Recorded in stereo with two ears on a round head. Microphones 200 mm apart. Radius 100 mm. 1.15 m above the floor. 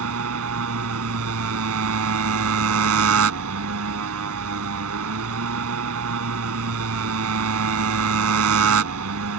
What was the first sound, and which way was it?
A motorcycle, 80° right.